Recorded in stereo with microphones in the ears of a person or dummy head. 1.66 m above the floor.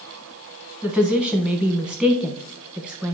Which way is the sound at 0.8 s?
5° right (ahead or behind).